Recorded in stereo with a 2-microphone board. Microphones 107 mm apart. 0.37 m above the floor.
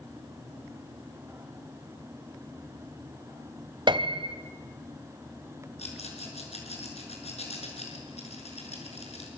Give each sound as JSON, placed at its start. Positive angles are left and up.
{"t": 3.9, "sound": "a piano", "side_deg": -45, "distance_m": 1.2}
{"t": 5.8, "sound": "a rattle", "side_deg": 80, "distance_m": 6.0}